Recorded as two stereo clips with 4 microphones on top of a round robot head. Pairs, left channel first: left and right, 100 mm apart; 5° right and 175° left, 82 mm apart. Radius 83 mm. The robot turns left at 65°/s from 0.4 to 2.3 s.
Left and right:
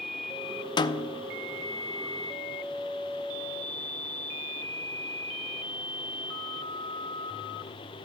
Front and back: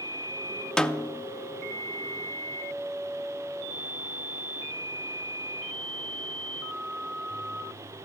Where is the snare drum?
70° left, 0.5 m; by 1.3 s 40° left, 0.5 m.